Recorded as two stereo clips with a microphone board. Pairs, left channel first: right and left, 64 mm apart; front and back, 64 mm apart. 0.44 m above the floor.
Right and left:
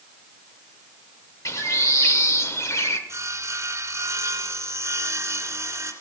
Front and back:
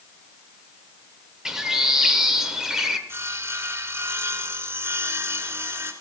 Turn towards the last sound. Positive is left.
turn(degrees=130)